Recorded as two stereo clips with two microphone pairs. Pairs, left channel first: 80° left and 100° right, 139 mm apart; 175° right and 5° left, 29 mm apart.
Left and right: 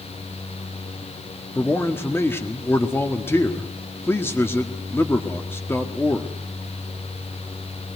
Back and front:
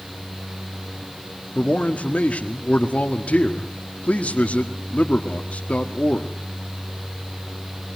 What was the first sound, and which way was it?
A man speaking, 155° left.